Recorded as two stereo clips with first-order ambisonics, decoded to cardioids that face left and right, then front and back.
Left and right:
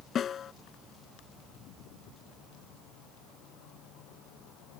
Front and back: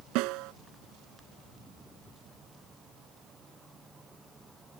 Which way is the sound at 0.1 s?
155° left.